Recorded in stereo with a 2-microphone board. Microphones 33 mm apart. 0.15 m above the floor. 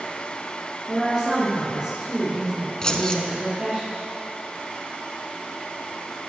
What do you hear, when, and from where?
0.9 s a woman speaking: 30° right (ahead or behind), 3.5 m
2.8 s keys jangling: 25° left (ahead or behind), 1.0 m